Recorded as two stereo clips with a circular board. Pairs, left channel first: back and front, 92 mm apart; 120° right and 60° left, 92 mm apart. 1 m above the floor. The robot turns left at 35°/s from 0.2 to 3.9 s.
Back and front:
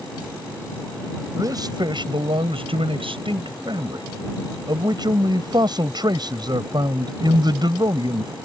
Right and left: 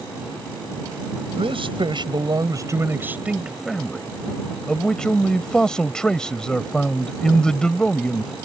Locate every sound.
1.4 s a man speaking: 50° left; by 8.3 s 40° right